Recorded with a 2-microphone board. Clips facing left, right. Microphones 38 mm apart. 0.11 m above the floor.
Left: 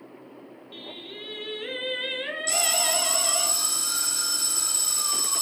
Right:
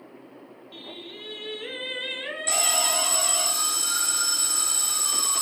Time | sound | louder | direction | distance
0.7 | singing | left 1 dB | 10° left (ahead or behind) | 0.6 m
2.5 | an alarm | right 1 dB | 45° right (ahead or behind) | 1.0 m